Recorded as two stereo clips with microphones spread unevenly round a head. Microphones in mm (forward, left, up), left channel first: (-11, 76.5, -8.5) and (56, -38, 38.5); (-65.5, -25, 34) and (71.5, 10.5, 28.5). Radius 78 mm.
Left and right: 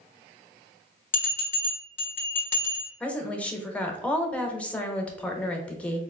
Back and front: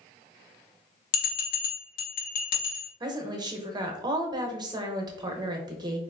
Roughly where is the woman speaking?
Ahead left.